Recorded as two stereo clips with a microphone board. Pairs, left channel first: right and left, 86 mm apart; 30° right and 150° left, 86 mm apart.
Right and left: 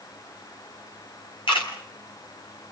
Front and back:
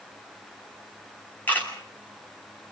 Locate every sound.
1.5 s a camera shutter: 100° right, 7.5 m